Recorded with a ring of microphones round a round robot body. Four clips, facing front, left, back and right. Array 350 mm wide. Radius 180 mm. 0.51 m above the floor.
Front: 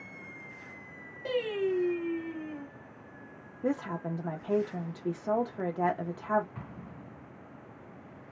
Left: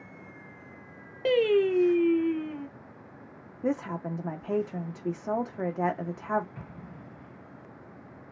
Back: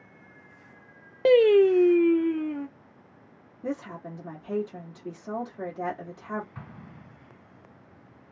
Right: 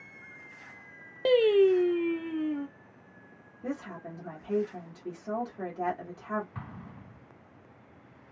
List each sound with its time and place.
1.2 s singing: 170° right, 0.5 m
3.6 s a woman speaking: 55° left, 0.9 m
6.5 s an explosion: 95° right, 1.1 m